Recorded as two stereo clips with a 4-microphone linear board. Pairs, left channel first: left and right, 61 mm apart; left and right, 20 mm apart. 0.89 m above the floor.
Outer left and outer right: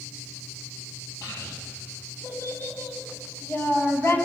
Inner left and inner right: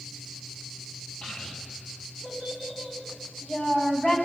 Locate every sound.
1.2 s a child speaking: 75° left (ahead or behind), 2 m; by 4.2 s 50° left (ahead or behind), 3.5 m